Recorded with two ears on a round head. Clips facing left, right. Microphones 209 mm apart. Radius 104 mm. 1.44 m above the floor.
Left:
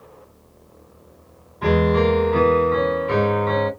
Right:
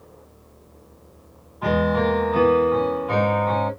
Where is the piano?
35° left (ahead or behind), 2.5 m.